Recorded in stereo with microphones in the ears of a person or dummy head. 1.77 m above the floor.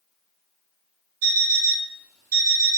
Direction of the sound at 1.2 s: 45° right (ahead or behind).